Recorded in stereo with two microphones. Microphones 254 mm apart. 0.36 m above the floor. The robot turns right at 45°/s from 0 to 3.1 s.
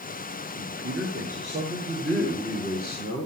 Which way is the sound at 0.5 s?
70° right.